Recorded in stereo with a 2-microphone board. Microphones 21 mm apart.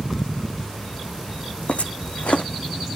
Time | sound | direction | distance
1.7 | footsteps | 80° left | 1.0 m